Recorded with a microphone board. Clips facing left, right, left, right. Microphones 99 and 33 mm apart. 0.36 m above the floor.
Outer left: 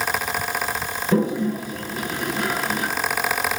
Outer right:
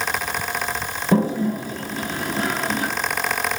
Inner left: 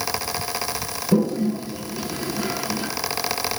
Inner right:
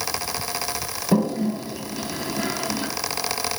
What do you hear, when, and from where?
1.1 s a toilet flushing: 35° right (ahead or behind), 2.5 m